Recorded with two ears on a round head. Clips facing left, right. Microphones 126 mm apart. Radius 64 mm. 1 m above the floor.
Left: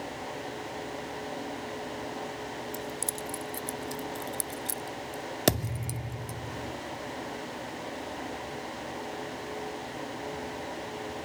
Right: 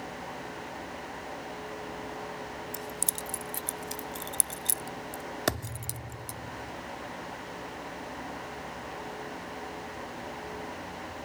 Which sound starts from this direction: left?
A thud, at 5.5 s.